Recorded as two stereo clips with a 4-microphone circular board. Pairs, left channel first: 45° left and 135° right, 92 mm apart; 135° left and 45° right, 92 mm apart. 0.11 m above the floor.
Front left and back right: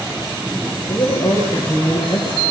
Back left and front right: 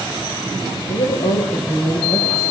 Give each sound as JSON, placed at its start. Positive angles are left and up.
{"t": 0.9, "sound": "a woman speaking", "azimuth_deg": 115, "distance_m": 7.5}